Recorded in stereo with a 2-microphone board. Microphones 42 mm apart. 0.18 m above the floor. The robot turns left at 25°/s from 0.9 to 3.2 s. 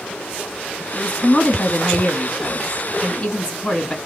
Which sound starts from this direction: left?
A woman speaking, at 0.9 s.